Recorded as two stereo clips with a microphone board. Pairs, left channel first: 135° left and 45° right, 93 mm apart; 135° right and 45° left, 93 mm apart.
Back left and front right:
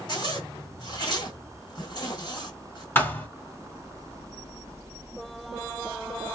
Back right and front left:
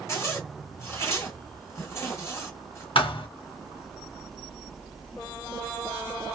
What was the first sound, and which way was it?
A zipper, 165° left.